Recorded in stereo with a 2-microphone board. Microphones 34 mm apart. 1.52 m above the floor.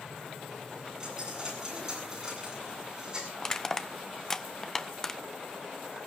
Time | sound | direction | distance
1.0 | a dropped coin | 20° right (ahead or behind) | 8.5 m
3.4 | crushing | 15° left (ahead or behind) | 0.9 m